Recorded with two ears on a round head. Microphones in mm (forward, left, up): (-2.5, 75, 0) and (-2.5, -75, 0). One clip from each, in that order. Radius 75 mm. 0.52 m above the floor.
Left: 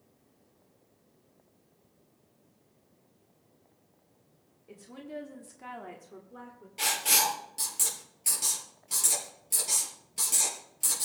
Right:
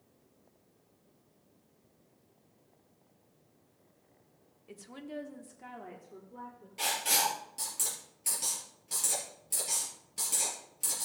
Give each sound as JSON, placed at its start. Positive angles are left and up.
{"t": 4.7, "sound": "a woman speaking", "side_deg": -35, "distance_m": 1.2}
{"t": 6.8, "sound": "writing", "side_deg": 10, "distance_m": 4.0}